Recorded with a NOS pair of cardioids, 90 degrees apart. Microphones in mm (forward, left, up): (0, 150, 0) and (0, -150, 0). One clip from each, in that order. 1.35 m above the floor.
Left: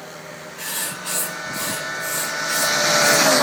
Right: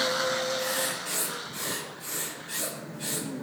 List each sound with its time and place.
0.6 s writing: 65° left, 5 m